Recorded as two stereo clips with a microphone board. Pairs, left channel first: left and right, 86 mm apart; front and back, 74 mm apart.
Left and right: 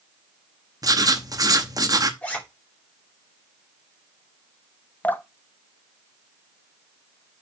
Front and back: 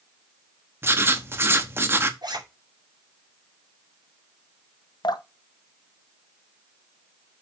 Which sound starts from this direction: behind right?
Writing, at 0.8 s.